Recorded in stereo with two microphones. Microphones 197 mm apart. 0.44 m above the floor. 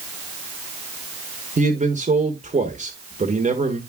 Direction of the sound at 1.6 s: 35° right (ahead or behind).